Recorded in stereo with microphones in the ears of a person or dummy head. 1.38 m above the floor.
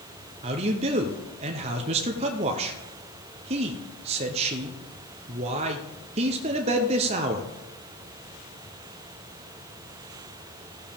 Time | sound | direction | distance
0.4 | a man speaking | 30° right (ahead or behind) | 0.8 m